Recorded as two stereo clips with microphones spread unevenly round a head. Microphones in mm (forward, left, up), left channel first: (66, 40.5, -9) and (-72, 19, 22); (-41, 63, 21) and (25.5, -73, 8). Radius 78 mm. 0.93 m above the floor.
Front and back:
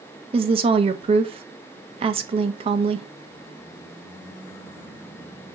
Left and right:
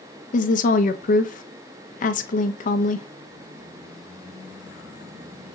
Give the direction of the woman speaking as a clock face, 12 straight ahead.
7 o'clock.